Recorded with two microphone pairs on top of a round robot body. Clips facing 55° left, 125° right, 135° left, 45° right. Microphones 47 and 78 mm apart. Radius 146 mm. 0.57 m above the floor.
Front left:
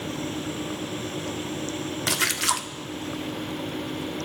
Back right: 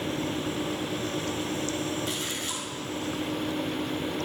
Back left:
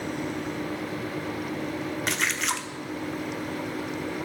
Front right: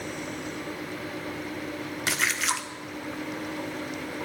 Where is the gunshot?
No gunshot in this recording.